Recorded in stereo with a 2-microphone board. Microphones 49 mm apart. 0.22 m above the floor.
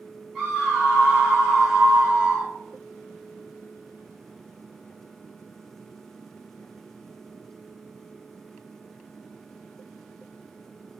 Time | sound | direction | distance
0.3 | a scream | 5° right (ahead or behind) | 1.1 m